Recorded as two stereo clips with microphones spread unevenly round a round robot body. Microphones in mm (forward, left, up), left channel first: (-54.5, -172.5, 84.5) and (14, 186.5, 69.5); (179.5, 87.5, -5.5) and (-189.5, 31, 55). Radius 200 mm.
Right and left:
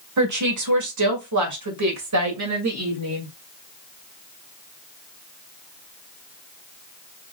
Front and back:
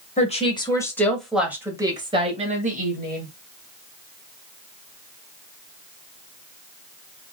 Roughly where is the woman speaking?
Ahead left.